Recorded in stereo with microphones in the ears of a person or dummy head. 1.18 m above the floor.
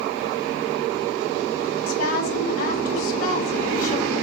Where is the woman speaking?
80° left, 3.5 m.